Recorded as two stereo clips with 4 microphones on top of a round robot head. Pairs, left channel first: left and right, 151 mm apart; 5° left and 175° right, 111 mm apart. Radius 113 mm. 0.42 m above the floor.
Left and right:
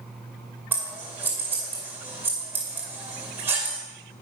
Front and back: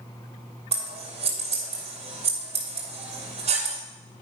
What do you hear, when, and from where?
0.7 s scissors: 165° right, 2.5 m